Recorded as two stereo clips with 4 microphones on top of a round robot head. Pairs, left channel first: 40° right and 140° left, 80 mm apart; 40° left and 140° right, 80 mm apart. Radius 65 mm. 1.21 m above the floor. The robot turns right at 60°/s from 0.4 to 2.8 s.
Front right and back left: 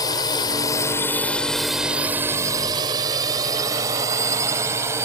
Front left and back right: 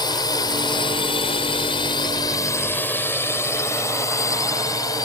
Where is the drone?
5° left; by 5.1 s 85° left.